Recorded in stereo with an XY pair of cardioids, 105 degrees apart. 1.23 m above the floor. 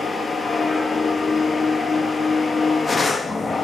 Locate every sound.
0.0 s a machine running: 20° left, 1.5 m